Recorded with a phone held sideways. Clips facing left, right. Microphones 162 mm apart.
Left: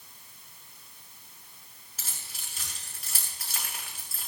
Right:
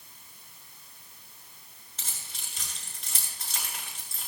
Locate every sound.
2.0 s keys jangling: 5° left (ahead or behind), 7.5 m